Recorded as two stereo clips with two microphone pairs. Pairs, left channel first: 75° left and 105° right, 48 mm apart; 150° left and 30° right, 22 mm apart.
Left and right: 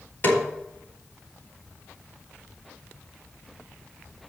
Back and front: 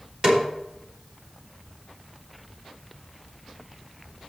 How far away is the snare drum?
About 3 m.